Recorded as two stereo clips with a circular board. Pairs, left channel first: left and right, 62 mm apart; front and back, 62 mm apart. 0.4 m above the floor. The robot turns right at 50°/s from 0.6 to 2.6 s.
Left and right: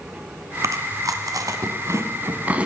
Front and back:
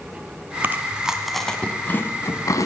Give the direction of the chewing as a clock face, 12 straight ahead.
4 o'clock.